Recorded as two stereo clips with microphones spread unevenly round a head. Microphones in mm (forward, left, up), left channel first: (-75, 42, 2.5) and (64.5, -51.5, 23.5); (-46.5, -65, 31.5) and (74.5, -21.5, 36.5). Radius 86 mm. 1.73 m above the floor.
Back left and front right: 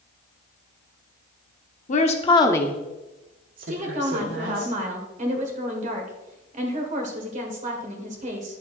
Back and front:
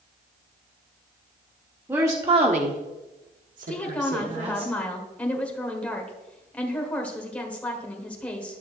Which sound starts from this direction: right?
A woman speaking, at 3.7 s.